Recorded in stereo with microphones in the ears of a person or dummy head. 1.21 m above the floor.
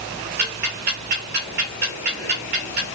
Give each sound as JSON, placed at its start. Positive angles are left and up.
{"t": 0.4, "sound": "ticking", "side_deg": -50, "distance_m": 0.8}